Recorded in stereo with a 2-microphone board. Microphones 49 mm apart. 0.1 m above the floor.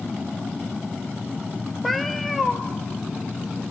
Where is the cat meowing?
Centre (ahead or behind), 1.0 m.